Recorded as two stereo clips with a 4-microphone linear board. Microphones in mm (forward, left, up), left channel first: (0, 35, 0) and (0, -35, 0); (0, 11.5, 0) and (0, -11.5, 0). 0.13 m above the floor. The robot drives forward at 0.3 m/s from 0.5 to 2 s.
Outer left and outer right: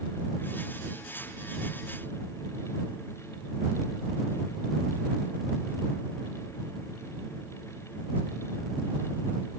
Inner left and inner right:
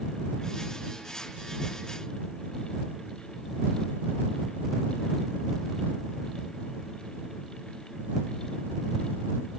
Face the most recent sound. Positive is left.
No sound to turn to.